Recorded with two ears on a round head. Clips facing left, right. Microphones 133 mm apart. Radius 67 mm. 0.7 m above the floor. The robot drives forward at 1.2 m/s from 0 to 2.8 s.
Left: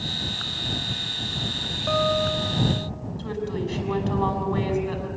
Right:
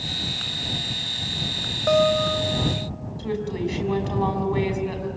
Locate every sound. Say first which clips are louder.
1.9 s a guitar: right 4 dB; 55° right (ahead or behind), 1.6 m; by 2.9 s 30° right (ahead or behind), 2.5 m
3.2 s a woman speaking: right 3 dB; 15° right (ahead or behind), 6 m